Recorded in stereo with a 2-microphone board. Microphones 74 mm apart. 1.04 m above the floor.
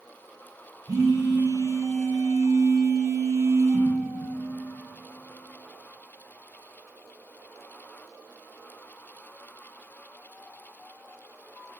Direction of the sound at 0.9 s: 50° right (ahead or behind).